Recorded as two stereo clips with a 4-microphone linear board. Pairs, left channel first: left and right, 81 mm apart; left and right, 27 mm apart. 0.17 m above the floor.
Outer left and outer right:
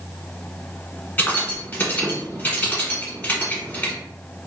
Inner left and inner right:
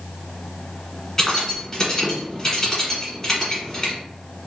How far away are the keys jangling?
About 1.0 m.